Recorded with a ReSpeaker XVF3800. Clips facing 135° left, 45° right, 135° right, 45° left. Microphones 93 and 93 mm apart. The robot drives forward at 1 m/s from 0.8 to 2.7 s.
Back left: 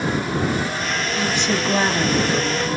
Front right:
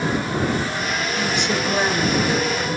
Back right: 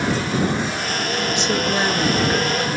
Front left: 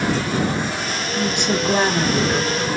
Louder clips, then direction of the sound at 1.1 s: Back left 2 dB, front left 2 dB; 65° left.